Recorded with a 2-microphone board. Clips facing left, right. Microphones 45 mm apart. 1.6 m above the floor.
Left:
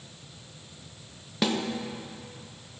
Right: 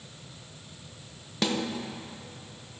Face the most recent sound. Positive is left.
turn(degrees=5)  # may be behind; listen again after turning